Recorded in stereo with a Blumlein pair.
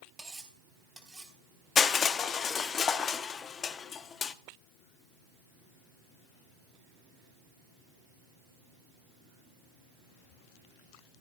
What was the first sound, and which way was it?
Cutlery clinking, 5° right.